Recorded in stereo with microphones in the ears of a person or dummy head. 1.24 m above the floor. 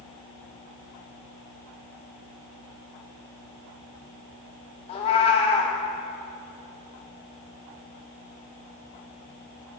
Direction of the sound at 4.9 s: 35° left (ahead or behind).